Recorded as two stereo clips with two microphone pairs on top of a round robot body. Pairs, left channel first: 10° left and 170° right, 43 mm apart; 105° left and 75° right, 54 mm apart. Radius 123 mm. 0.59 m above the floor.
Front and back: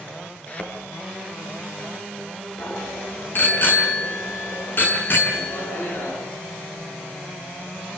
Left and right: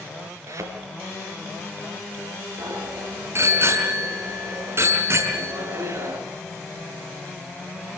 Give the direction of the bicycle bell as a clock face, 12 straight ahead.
1 o'clock.